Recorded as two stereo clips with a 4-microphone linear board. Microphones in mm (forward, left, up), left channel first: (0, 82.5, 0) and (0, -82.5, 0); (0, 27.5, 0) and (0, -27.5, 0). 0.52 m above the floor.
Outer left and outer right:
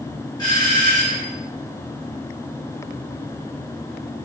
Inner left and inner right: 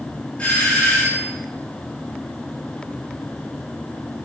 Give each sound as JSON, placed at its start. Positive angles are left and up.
{"t": 0.4, "sound": "a doorbell", "side_deg": 25, "distance_m": 4.0}